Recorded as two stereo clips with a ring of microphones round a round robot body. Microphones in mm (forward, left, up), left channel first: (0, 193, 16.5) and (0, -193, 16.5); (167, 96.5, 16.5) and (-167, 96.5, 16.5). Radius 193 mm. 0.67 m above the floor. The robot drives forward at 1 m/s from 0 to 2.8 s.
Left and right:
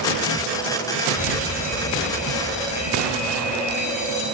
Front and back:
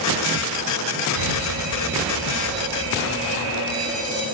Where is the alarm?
160° left, 8.5 m; by 4.2 s 165° left, 10 m.